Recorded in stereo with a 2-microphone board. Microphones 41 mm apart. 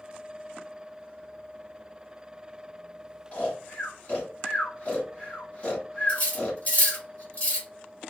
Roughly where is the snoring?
Left.